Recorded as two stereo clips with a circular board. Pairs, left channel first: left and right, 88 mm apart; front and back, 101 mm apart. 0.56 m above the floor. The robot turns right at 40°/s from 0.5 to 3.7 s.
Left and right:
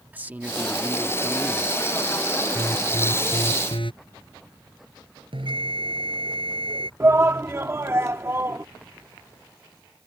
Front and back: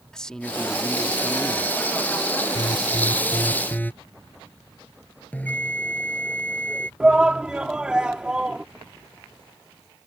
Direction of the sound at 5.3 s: 75° right.